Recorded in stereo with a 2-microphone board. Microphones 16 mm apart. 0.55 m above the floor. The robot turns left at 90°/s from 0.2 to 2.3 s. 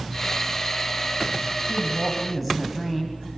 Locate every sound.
1.6 s a woman speaking: 120° right, 3.5 m; by 3.2 s straight behind, 3.5 m